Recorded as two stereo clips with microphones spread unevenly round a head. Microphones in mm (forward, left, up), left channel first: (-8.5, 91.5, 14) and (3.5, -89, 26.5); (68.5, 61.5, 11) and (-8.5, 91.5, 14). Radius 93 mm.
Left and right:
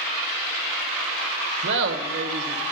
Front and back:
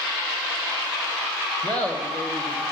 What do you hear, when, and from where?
1.6 s laughter: 100° right, 1.2 m